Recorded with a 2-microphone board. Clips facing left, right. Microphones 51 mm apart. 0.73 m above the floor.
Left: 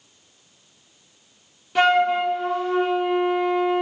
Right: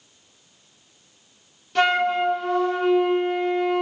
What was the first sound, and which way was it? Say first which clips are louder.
A flute: left 2 dB; 10° left (ahead or behind).